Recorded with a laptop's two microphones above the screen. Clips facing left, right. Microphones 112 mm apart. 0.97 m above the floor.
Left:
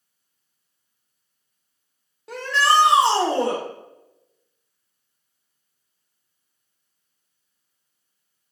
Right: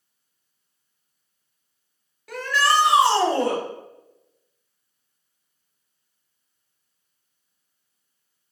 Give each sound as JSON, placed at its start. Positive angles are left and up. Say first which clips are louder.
{"t": 2.3, "sound": "a shout", "louder": "left 2 dB", "side_deg": 25, "distance_m": 0.7}